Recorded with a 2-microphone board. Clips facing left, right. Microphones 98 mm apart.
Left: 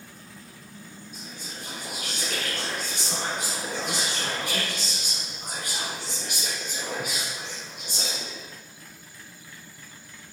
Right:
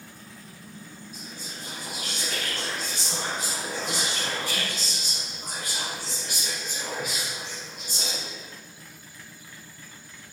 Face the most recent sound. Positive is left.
turn(degrees=60)  # may be behind; listen again after turning